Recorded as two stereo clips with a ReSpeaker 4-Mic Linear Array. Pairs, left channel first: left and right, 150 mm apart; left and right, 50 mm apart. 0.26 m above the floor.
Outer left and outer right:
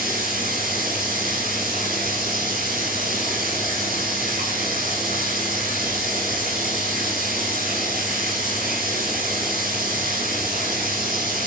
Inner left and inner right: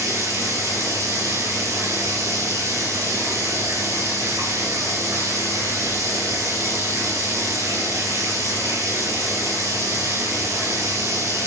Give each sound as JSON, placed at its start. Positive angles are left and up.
{"t": 0.0, "sound": "running water", "side_deg": -70, "distance_m": 7.5}